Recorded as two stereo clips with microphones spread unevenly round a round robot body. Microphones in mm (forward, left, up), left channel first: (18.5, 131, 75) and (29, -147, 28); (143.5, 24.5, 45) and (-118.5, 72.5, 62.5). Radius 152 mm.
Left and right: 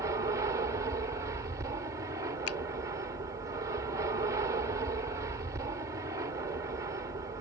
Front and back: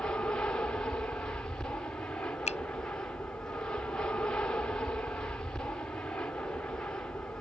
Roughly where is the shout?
No shout in this recording.